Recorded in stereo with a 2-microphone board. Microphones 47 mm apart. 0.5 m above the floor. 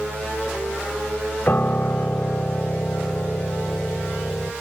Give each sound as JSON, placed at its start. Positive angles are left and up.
{"t": 1.5, "sound": "a piano", "side_deg": 45}